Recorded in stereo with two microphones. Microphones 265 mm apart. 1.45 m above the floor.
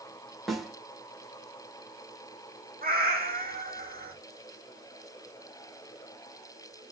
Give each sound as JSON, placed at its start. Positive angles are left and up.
{"t": 0.5, "sound": "a snare drum", "side_deg": 0, "distance_m": 3.0}
{"t": 2.8, "sound": "a cat meowing", "side_deg": -35, "distance_m": 2.0}